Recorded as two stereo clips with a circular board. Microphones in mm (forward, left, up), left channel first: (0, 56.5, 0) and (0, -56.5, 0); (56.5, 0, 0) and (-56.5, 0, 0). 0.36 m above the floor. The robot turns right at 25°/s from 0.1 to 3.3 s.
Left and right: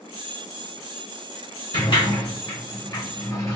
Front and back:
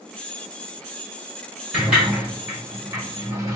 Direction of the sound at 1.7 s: 100° left.